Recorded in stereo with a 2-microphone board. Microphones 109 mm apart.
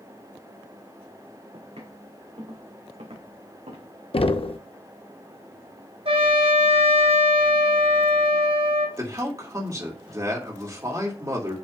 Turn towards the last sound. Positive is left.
turn(degrees=-35)  # may be behind; listen again after turning